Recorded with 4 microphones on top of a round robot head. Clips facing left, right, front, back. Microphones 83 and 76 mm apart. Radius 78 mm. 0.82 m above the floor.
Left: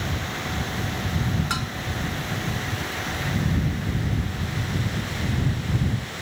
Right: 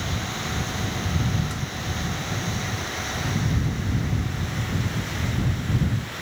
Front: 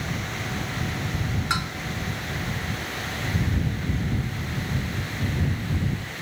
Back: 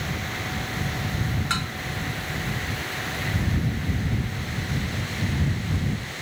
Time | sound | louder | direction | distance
1.5 | dishes clattering | left 4 dB, front 3 dB | 75° left | ?